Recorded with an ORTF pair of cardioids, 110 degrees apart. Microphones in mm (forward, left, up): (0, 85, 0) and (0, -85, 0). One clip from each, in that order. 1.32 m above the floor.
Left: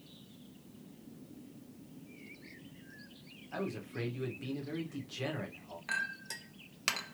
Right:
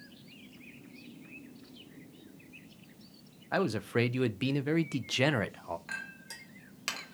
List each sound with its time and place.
3.5 s a man speaking: 65° right, 0.5 m
5.9 s a clink: 20° left, 0.6 m